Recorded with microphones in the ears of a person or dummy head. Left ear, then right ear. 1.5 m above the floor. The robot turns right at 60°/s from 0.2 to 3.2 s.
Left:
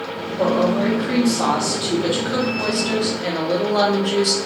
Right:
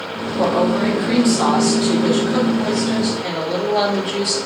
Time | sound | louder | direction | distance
0.4 | a woman speaking | right 1 dB | 75° right | 0.9 m